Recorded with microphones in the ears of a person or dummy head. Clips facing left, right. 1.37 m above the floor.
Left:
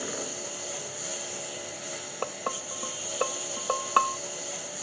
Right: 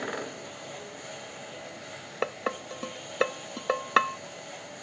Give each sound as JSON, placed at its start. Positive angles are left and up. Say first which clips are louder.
{"t": 0.0, "sound": "a lawn mower", "louder": "even", "side_deg": 60}
{"t": 2.2, "sound": "dishes clattering", "louder": "right 3 dB", "side_deg": -25}